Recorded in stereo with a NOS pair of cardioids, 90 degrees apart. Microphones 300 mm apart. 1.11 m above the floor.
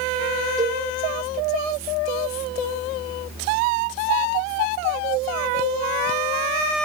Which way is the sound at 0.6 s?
10° right.